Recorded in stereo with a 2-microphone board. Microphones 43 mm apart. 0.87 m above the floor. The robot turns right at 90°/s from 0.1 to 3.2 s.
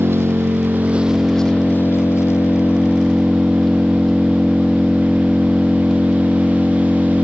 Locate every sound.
0.0 s an engine running: 105° right; by 7.2 s 175° left